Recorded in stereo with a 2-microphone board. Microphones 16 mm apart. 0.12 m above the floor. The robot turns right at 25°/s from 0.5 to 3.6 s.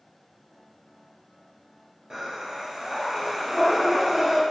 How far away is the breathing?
About 0.8 m.